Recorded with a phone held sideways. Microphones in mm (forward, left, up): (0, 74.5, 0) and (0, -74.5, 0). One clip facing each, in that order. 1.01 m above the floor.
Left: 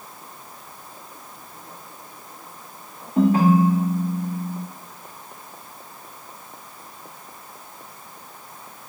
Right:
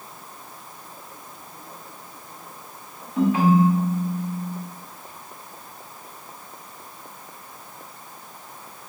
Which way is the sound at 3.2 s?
40° left (ahead or behind).